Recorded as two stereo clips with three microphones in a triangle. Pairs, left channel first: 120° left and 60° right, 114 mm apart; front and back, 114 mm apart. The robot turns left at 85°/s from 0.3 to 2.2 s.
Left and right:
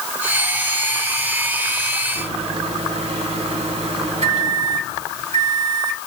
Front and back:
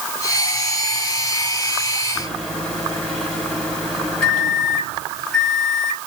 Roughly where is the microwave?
Right.